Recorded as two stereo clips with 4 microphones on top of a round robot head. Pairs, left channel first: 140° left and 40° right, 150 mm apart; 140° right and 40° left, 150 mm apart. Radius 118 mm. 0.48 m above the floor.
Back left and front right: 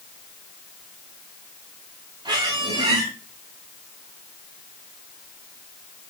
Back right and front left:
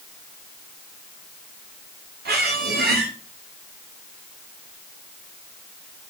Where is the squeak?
25° left, 8.5 m.